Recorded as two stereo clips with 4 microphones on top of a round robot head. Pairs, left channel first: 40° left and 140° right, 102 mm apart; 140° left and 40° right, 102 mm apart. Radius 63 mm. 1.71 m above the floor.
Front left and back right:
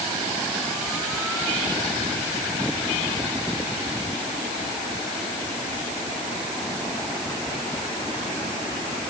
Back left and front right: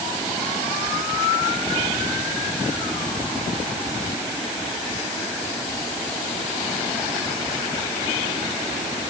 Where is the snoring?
No snoring in this recording.